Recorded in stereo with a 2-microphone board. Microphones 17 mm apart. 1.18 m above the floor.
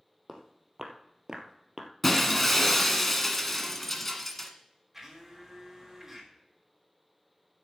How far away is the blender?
About 3.5 m.